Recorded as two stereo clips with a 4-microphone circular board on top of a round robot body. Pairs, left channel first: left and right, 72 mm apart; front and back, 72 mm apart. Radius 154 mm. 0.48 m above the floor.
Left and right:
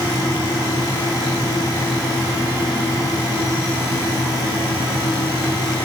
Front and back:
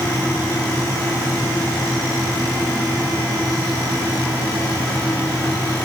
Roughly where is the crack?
No crack in this recording.